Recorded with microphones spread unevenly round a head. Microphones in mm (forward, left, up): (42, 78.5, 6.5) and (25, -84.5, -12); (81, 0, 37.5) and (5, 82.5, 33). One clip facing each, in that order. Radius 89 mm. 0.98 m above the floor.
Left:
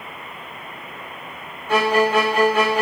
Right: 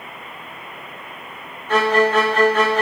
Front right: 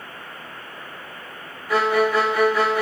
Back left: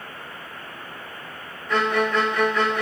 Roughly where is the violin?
Ahead left.